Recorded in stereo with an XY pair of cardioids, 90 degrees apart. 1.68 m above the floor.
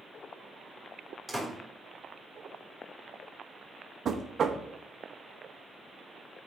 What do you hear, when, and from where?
1.3 s a door slam: 10° right, 3.5 m
4.0 s knocking: 55° right, 0.9 m